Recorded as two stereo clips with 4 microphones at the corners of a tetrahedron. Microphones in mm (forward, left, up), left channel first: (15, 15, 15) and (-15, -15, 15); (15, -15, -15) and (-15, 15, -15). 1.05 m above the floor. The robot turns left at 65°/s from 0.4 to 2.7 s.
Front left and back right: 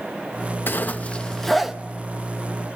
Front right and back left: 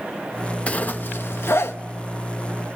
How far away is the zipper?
About 0.7 m.